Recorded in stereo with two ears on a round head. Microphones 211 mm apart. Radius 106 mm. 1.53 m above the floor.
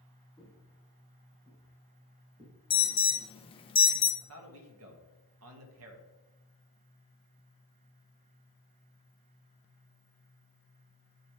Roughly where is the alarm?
Left.